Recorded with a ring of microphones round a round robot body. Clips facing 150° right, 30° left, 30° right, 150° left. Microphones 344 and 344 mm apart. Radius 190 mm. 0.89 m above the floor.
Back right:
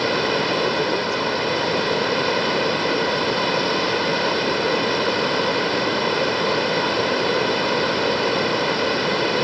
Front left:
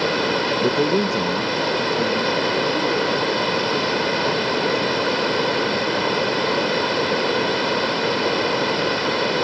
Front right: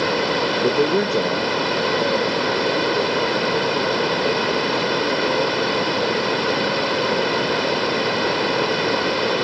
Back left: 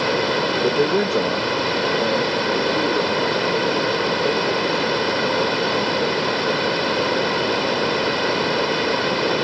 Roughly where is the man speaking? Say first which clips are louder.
Front left 3 dB, even; ahead left.